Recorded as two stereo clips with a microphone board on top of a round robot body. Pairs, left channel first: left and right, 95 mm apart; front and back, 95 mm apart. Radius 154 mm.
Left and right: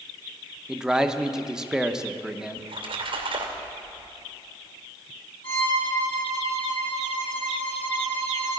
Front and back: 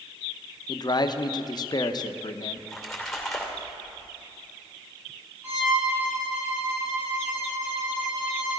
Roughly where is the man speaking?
Ahead.